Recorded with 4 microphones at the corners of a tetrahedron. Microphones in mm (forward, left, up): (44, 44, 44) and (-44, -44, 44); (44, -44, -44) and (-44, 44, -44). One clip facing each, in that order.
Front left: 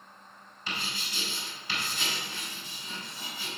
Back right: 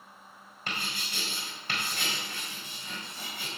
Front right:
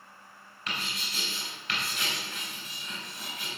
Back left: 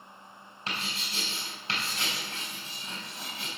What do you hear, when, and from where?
0.7 s writing: 170° right, 4 m